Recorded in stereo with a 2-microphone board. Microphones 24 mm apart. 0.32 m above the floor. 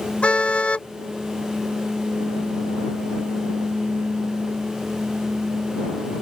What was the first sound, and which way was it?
A car horn, 50° left (ahead or behind).